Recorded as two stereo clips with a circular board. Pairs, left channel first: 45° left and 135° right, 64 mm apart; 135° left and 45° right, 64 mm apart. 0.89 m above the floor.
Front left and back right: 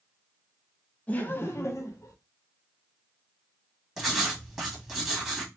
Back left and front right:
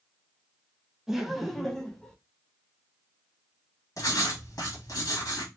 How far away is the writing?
About 1.5 m.